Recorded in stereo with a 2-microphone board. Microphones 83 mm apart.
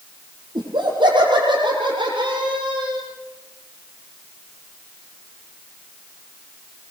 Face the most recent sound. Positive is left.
turn(degrees=-80)